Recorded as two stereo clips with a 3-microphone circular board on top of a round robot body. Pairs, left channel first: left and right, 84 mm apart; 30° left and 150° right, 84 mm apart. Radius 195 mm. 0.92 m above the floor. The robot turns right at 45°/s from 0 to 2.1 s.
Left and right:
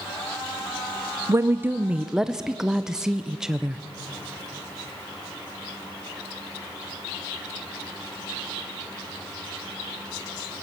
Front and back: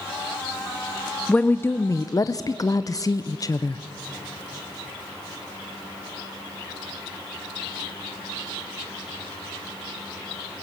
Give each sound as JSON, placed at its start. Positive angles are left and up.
{"t": 1.3, "sound": "a woman speaking", "azimuth_deg": -45, "distance_m": 0.7}